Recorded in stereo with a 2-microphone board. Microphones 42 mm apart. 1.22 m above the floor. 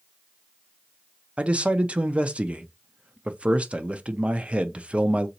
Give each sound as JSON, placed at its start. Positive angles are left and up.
{"t": 1.4, "sound": "a man speaking", "side_deg": -30, "distance_m": 0.5}